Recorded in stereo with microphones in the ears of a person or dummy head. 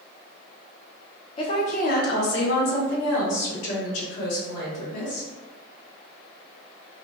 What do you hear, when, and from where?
1.4 s a woman speaking: 30° left (ahead or behind), 0.7 m; by 5.3 s 85° left, 2.5 m